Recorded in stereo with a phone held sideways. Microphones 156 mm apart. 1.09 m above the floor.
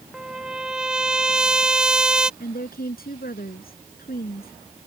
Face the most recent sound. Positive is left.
turn(degrees=70)  # may be behind; listen again after turning